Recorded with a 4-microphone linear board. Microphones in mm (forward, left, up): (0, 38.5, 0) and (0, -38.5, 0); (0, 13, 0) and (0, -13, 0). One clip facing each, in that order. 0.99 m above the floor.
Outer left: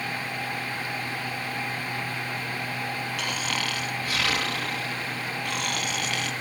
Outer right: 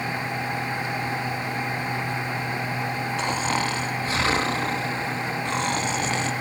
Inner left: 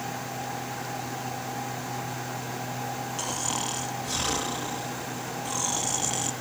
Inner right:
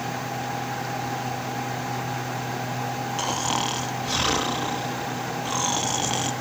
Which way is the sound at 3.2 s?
25° right (ahead or behind).